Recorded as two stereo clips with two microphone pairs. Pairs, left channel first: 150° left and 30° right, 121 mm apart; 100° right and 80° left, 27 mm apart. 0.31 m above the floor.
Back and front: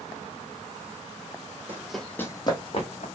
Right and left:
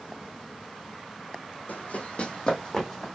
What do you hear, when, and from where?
1.7 s running footsteps: 105° right, 0.9 m; by 3.1 s straight behind, 1.2 m